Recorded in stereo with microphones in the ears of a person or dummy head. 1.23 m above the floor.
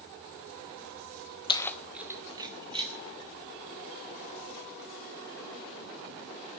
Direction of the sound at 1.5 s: 25° left (ahead or behind).